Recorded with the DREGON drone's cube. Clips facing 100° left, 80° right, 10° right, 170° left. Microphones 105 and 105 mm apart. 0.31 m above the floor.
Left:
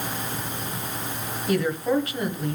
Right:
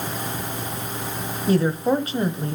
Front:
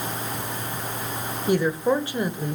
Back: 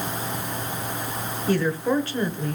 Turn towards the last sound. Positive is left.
turn(degrees=-70)